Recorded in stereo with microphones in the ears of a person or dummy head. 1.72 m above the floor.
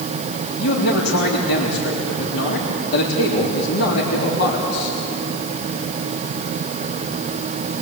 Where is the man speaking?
85° left, 3.5 m.